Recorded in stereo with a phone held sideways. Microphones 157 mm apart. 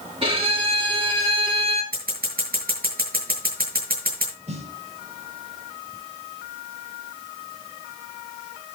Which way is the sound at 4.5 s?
45° right (ahead or behind).